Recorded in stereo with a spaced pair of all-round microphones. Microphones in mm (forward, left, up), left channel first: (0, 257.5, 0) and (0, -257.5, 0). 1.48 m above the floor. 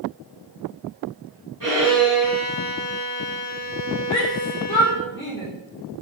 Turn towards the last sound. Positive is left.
turn(degrees=5)  # may be behind; listen again after turning